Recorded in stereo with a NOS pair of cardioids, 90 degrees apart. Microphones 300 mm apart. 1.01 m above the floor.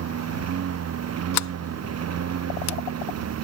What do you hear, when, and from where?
0.0 s a lawn mower: 55° right
1.3 s a sliding door: 60° left